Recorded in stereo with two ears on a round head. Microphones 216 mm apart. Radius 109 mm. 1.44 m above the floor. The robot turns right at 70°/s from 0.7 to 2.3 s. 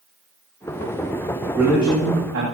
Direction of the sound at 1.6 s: 175° right.